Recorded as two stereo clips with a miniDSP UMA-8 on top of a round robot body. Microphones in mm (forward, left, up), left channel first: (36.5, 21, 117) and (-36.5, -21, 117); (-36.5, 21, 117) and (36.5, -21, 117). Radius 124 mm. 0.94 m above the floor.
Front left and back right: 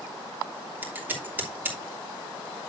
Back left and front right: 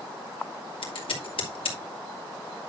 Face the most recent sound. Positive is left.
turn(degrees=140)